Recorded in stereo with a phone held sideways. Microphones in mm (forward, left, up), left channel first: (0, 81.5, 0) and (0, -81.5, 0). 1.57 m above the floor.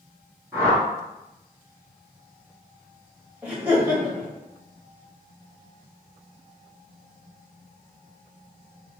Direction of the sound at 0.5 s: 20° right (ahead or behind).